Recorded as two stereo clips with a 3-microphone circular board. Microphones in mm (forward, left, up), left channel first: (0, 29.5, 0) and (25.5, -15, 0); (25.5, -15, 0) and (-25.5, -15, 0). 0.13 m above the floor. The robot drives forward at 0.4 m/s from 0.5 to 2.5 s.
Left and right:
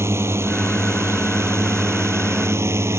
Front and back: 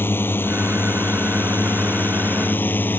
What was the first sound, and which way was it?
A drone, 40° right.